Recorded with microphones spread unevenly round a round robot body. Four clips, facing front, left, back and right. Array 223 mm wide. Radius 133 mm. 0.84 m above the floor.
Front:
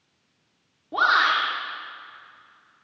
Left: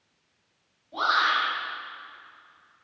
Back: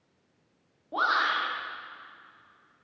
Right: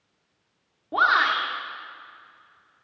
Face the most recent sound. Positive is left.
turn(degrees=-55)